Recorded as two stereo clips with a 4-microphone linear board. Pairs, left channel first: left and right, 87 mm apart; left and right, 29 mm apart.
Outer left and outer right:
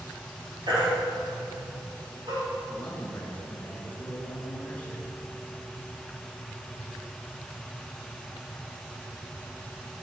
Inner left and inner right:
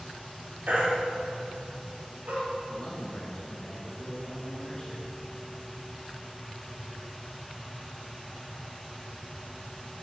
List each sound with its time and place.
0.7 s a baby crying: 55° right (ahead or behind), 2.5 m
2.7 s a man speaking: 15° left (ahead or behind), 1.1 m